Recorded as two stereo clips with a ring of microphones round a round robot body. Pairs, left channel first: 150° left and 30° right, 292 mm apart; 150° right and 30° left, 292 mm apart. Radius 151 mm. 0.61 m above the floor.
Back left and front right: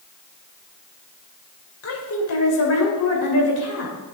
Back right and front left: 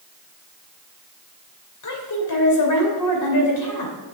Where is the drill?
No drill in this recording.